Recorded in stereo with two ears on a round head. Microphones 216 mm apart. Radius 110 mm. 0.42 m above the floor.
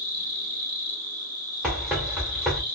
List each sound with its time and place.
0.0 s an insect: 20° right (ahead or behind), 1.9 m
1.6 s running footsteps: 5° right (ahead or behind), 1.4 m